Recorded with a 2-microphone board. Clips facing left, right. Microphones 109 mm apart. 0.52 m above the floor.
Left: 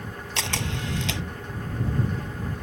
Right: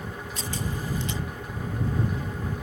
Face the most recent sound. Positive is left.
turn(degrees=85)